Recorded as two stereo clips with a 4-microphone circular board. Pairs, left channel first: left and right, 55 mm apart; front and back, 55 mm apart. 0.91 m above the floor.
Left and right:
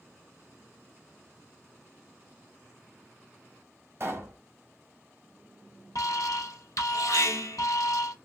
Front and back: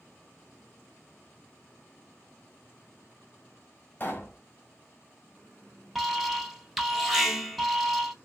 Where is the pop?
50° right, 1.9 m.